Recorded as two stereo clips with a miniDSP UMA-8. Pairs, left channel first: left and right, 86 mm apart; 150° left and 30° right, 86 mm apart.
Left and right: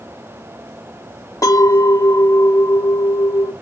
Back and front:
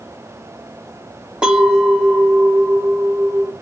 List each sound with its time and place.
1.4 s a clink: 50° left, 1.0 m